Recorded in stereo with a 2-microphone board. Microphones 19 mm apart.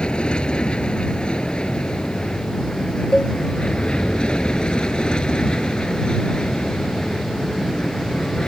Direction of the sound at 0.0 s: 60° left (ahead or behind).